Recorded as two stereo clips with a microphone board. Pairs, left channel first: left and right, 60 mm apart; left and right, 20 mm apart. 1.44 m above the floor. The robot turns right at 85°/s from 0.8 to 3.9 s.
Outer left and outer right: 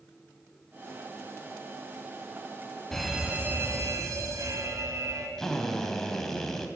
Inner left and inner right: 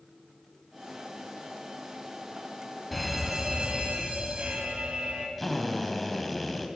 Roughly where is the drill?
Centre.